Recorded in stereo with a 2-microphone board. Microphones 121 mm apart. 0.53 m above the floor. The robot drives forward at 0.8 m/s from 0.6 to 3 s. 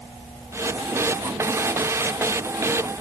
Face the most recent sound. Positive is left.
No sound to turn to.